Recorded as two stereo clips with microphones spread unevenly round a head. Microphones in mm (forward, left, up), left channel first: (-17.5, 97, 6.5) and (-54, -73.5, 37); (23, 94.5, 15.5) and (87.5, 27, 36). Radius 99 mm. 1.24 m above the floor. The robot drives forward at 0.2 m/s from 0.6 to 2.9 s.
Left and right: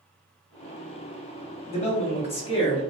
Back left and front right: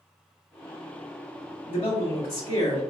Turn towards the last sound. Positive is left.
turn(degrees=140)